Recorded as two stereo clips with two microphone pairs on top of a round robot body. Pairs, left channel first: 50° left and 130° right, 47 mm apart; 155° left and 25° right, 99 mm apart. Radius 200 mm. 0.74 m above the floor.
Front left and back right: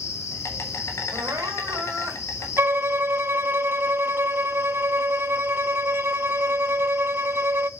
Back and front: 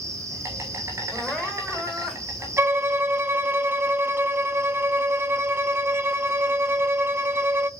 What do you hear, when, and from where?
0.0 s an insect: 35° left, 1.1 m
1.1 s crying: 120° right, 3 m
2.6 s a violin: 95° right, 0.7 m